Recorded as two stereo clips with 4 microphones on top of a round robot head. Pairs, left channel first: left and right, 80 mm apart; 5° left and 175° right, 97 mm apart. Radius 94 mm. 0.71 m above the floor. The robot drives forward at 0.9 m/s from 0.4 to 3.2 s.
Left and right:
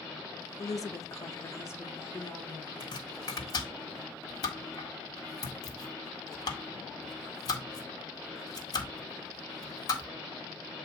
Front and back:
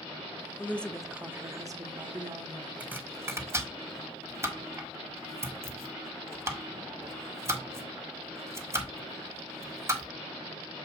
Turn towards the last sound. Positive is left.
turn(degrees=120)